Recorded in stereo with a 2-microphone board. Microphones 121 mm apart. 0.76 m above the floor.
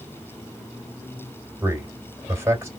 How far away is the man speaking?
About 3 m.